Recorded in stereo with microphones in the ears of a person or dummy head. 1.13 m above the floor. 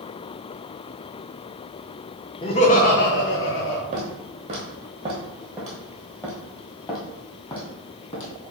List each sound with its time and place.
2.4 s laughter: 25° left (ahead or behind), 0.8 m; by 3.8 s 65° left (ahead or behind), 1.3 m
3.9 s footsteps: 25° right (ahead or behind), 1.2 m; by 8.3 s 30° left (ahead or behind), 2 m